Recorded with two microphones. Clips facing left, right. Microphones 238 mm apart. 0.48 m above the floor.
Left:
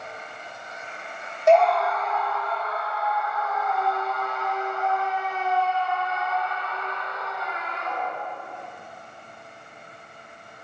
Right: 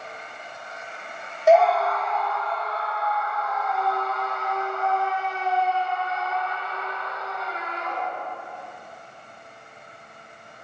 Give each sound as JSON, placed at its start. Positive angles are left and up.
{"t": 1.5, "sound": "a scream", "side_deg": -5, "distance_m": 0.7}